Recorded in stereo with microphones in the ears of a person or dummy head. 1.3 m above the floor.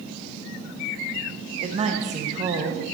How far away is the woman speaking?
About 1.1 m.